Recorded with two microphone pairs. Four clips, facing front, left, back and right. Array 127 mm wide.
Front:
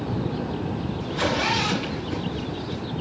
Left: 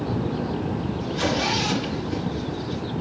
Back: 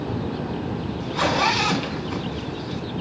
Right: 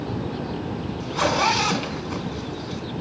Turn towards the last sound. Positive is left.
turn(degrees=-125)